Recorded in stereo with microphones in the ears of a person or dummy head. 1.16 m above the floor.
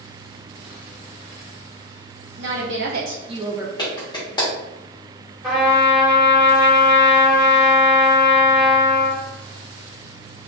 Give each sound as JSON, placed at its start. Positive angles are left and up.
{"t": 2.4, "sound": "a woman speaking", "side_deg": -70, "distance_m": 1.0}
{"t": 3.8, "sound": "a clap", "side_deg": 25, "distance_m": 1.1}
{"t": 5.4, "sound": "a trumpet", "side_deg": -5, "distance_m": 1.5}